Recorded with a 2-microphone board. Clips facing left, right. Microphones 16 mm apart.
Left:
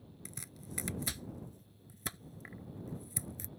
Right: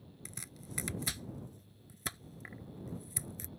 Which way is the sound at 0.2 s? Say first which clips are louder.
Even; 10° right (ahead or behind).